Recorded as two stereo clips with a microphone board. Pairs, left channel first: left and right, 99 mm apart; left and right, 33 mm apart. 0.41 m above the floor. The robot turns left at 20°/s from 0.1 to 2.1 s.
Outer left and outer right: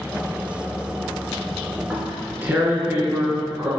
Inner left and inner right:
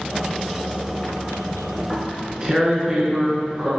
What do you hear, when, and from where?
1.8 s tearing paper: 15° right (ahead or behind), 2.5 m; by 3.7 s 20° right (ahead or behind), 2.5 m